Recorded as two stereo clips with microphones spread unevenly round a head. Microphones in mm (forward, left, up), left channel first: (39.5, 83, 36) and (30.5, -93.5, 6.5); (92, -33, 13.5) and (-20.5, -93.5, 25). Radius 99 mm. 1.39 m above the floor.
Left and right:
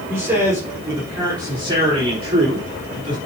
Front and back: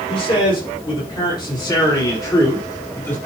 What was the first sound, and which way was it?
A man speaking, 15° right.